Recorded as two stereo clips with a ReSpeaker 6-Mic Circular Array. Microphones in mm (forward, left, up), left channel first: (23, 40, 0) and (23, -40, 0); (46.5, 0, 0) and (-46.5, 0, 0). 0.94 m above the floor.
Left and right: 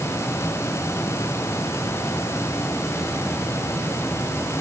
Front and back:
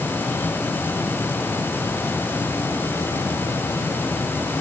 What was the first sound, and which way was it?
Only background noise.